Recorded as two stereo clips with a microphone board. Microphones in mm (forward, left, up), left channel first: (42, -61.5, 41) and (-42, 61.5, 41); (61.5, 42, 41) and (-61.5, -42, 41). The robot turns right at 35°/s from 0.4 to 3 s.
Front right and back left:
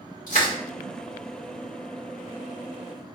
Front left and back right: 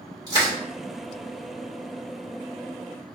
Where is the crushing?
80° right, 2.5 m; by 0.5 s 75° right, 2.5 m.